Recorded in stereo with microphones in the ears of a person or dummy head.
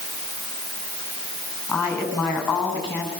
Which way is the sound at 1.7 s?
20° left (ahead or behind).